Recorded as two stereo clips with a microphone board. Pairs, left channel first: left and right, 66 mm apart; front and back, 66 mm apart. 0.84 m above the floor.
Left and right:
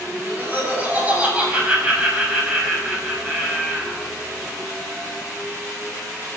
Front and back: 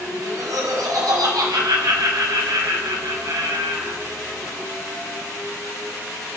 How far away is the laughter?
About 5 m.